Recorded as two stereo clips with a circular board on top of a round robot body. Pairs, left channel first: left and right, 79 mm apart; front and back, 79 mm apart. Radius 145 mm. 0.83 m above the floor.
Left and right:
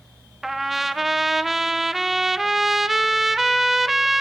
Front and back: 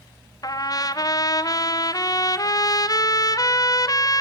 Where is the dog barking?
I don't hear a dog barking.